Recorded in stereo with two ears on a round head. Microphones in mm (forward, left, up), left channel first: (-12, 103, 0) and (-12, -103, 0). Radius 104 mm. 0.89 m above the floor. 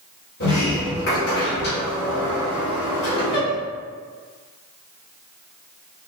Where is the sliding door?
50° left (ahead or behind), 1.8 m.